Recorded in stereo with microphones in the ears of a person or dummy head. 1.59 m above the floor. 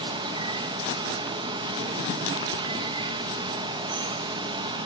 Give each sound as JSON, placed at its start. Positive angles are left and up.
{"t": 0.0, "sound": "running water", "side_deg": -25, "distance_m": 1.2}